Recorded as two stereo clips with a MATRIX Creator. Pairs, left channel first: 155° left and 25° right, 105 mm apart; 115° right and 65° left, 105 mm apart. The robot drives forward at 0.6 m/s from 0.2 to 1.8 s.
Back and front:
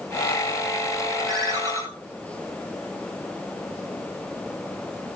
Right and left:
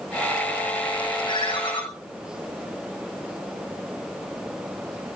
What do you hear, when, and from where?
1.2 s a ringtone: 75° right, 3 m; by 1.8 s 80° right, 3 m